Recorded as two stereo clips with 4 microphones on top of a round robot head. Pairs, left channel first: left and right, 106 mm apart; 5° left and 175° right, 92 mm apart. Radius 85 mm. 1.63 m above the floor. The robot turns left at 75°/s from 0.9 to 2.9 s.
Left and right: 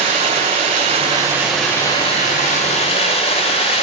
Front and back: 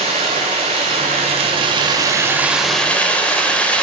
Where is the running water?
130° right, 2.0 m; by 3.9 s 80° left, 2.0 m.